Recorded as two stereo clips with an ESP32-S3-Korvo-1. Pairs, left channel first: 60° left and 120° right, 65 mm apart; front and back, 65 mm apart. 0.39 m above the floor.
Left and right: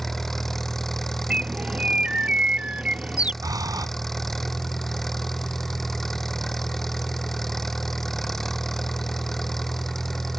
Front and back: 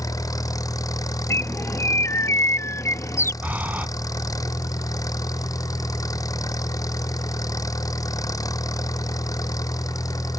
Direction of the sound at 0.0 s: 25° right.